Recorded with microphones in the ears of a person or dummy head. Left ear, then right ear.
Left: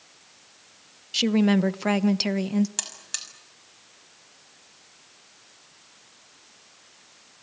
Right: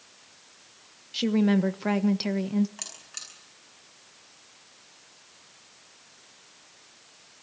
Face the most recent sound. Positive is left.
turn(degrees=85)